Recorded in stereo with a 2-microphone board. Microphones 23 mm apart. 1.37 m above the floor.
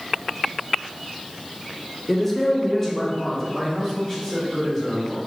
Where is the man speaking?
5° left (ahead or behind), 0.5 m; by 5.2 s 15° left (ahead or behind), 2 m.